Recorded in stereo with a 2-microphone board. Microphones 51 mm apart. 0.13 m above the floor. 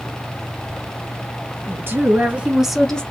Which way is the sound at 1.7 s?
55° right (ahead or behind).